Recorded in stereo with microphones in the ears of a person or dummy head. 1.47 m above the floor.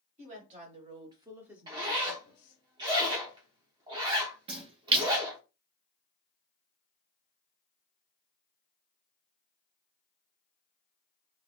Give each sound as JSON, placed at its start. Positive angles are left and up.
{"t": 0.2, "sound": "a woman speaking", "side_deg": -45, "distance_m": 1.2}
{"t": 1.7, "sound": "a zipper", "side_deg": -25, "distance_m": 0.7}
{"t": 4.5, "sound": "a splash", "side_deg": -35, "distance_m": 0.6}